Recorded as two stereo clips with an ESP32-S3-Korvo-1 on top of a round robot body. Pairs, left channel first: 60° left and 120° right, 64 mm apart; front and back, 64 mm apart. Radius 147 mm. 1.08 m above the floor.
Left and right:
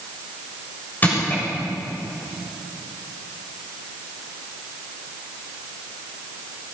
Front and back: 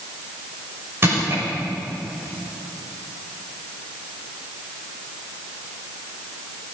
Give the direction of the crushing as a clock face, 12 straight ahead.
8 o'clock.